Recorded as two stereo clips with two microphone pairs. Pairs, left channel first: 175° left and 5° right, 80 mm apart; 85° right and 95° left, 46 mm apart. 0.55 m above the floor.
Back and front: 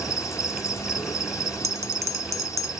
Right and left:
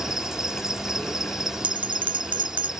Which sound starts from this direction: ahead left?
A bell, at 1.6 s.